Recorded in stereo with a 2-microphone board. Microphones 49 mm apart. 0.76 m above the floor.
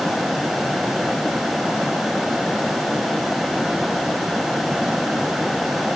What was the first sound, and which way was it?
Only background noise.